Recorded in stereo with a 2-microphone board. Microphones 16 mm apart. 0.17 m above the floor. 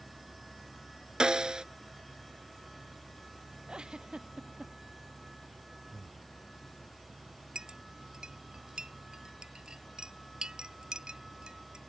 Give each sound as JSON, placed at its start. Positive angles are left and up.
{"t": 1.2, "sound": "a snare drum", "side_deg": -70}
{"t": 3.7, "sound": "a giggle", "side_deg": -80}
{"t": 5.9, "sound": "breathing", "side_deg": 35}
{"t": 7.5, "sound": "a clink", "side_deg": -70}